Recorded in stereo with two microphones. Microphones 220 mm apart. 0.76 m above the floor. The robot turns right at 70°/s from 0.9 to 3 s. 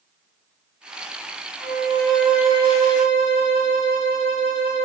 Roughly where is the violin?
Behind left.